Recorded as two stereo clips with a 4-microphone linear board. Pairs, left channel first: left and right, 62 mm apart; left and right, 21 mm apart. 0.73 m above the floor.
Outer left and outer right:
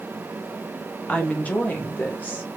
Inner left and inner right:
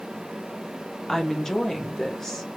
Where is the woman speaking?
20° left (ahead or behind), 0.9 m; by 2.5 s 25° left (ahead or behind), 1.3 m.